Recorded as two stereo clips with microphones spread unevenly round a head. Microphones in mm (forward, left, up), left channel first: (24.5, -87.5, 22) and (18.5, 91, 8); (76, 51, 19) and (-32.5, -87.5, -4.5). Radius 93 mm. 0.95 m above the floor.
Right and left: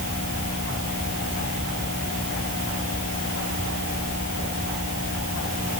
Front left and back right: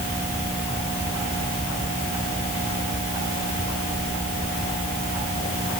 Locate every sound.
Only background noise.